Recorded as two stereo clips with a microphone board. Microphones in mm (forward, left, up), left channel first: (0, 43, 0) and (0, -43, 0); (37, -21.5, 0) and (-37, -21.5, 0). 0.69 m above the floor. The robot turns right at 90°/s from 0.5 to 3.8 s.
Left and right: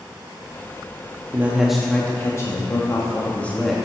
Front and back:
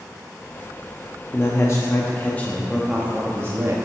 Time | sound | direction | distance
1.3 | a man speaking | 40° right | 0.8 m